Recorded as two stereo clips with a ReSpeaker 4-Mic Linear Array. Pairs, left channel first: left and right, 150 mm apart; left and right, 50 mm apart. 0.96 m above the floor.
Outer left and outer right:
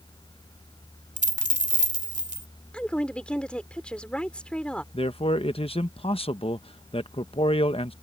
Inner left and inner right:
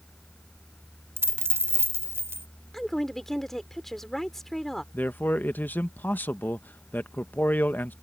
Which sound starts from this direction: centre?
A woman speaking, at 2.7 s.